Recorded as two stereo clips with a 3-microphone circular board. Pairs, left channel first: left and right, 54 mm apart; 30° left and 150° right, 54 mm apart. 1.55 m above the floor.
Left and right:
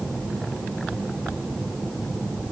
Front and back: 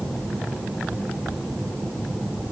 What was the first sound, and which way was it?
Only background noise.